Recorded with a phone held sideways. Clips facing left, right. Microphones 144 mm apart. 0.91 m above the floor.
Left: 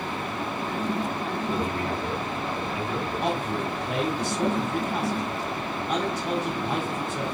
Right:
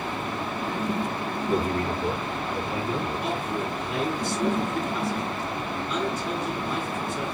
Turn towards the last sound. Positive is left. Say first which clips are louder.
# left 1 dB
turn(degrees=75)  # may be behind; listen again after turning